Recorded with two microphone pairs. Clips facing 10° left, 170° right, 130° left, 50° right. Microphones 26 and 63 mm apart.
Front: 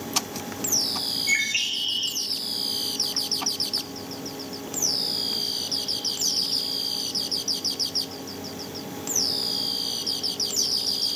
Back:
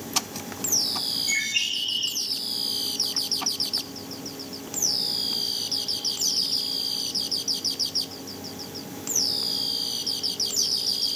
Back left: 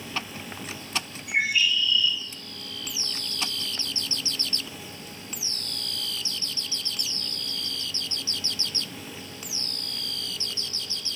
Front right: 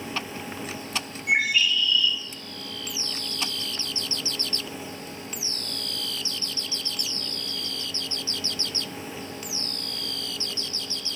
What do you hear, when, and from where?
1.3 s a bird: 40° right, 3.5 m